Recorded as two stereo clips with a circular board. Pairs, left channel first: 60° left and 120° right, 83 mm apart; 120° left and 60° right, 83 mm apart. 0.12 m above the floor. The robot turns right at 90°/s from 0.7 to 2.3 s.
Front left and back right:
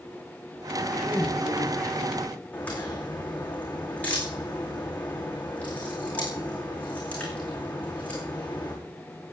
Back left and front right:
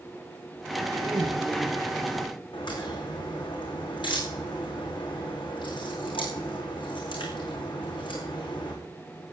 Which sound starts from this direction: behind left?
A crack, at 2.5 s.